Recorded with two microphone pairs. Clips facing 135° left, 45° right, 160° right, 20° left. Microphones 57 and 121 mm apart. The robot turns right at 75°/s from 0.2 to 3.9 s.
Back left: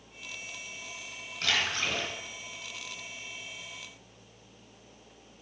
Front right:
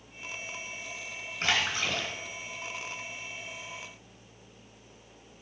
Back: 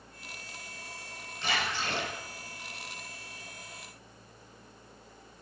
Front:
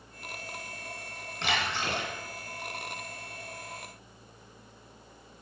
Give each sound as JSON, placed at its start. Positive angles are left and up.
{"t": 1.4, "sound": "a splash", "azimuth_deg": 10, "distance_m": 3.0}